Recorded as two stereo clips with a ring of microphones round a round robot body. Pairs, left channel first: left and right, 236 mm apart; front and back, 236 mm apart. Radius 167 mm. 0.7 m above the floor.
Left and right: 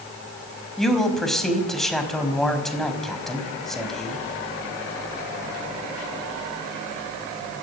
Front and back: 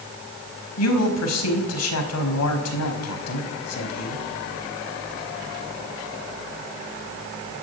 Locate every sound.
0.8 s a man speaking: straight ahead, 5 m